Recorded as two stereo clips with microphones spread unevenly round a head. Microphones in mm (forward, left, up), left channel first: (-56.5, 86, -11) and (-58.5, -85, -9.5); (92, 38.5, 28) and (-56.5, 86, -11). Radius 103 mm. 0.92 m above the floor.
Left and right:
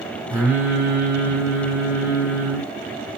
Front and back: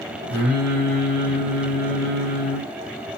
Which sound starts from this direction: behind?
Singing, at 0.3 s.